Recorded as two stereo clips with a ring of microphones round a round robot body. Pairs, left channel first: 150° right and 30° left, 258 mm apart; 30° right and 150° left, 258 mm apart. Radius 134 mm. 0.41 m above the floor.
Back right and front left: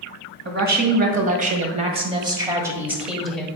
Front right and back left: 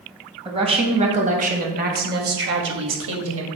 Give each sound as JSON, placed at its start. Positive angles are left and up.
{"t": 0.5, "sound": "a woman speaking", "azimuth_deg": 80, "distance_m": 2.5}